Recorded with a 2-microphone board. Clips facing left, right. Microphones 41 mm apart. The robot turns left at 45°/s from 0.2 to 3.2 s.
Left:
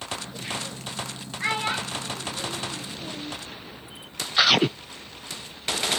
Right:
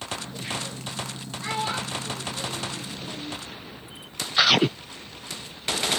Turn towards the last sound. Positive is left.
turn(degrees=10)  # may be behind; listen again after turning